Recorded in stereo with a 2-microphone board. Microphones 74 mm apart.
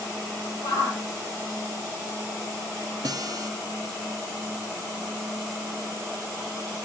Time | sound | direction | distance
0.6 | a shout | 85° left | 6 m
3.0 | a guitar | 55° right (ahead or behind) | 0.9 m